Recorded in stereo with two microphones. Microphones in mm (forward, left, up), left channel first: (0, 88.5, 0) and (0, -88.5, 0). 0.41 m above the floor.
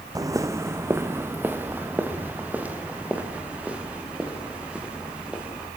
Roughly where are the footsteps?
Centre.